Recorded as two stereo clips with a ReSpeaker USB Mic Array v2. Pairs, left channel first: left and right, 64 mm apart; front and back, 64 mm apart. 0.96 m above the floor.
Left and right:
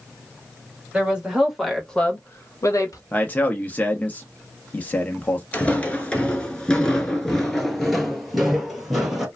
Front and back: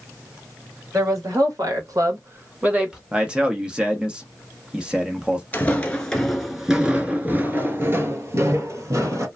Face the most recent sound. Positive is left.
turn(degrees=-175)